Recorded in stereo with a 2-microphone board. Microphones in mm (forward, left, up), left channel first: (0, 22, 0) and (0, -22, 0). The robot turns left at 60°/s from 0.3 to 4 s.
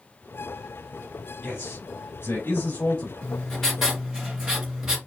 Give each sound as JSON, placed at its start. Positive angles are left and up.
{"t": 1.4, "sound": "a man speaking", "azimuth_deg": 145, "distance_m": 4.0}
{"t": 3.2, "sound": "writing", "azimuth_deg": 35, "distance_m": 3.5}